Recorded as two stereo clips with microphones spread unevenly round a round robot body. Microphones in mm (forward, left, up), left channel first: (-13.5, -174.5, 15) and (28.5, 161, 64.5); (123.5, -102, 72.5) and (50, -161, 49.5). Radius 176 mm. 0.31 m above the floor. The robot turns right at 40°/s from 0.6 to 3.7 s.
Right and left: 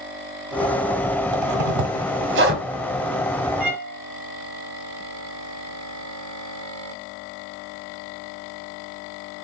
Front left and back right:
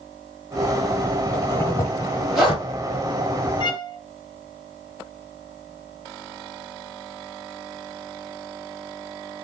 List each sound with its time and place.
1.3 s a zipper: 100° left, 1.3 m; by 2.6 s 150° left, 1.3 m
3.6 s a violin: 5° right, 1.3 m